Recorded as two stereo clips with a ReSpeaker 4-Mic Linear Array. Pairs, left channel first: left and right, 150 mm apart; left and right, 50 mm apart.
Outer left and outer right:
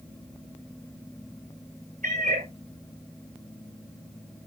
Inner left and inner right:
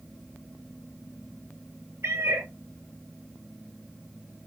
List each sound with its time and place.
2.0 s a cat meowing: 55° right (ahead or behind), 6.5 m